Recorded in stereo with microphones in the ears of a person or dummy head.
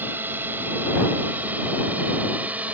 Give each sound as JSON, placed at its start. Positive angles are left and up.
{"t": 0.0, "sound": "a drone", "side_deg": -10}